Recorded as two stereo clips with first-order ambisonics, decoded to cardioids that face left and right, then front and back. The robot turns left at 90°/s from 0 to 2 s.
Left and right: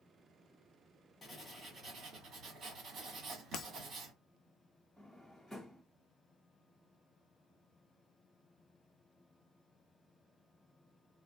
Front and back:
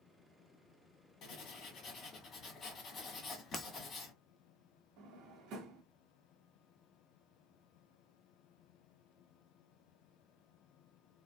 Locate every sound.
1.2 s writing: 20° left, 1.5 m; by 4.1 s 50° right, 1.5 m
3.5 s breaking glass: 65° left, 0.5 m
5.0 s a drawer: 175° left, 1.5 m